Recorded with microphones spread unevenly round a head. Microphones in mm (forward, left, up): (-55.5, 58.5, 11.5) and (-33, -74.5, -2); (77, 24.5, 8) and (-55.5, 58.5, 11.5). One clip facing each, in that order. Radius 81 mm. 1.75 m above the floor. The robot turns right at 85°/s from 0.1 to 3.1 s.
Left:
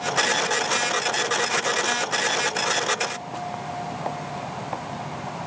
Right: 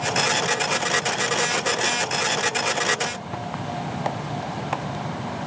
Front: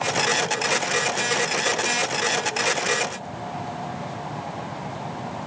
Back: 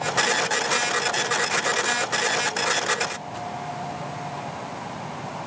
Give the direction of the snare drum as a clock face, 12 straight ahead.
I don't hear a snare drum.